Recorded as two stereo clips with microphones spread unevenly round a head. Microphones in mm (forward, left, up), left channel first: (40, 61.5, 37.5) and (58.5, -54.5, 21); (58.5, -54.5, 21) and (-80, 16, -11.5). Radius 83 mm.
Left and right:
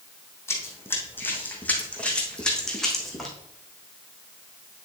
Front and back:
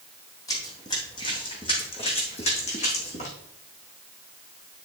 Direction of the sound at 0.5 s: 40° left.